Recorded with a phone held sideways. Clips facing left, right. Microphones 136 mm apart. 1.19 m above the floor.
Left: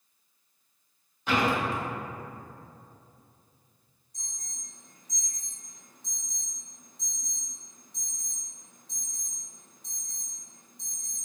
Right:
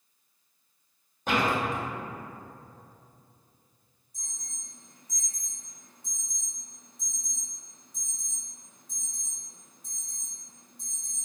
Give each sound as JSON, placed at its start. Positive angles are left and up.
{"t": 1.3, "sound": "a door slam", "side_deg": -45, "distance_m": 1.1}
{"t": 4.1, "sound": "an alarm", "side_deg": -5, "distance_m": 1.5}